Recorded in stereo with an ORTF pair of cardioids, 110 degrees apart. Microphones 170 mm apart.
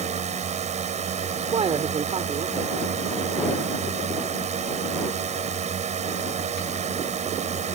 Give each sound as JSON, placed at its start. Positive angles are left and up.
{"t": 0.0, "sound": "a drone", "azimuth_deg": -45}
{"t": 1.4, "sound": "a man speaking", "azimuth_deg": -35}